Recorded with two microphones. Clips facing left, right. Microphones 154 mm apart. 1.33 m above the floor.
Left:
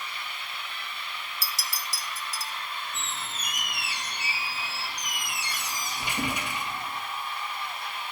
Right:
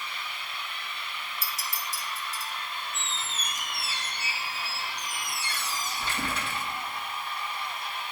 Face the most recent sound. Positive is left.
turn(degrees=15)  # may be behind; listen again after turning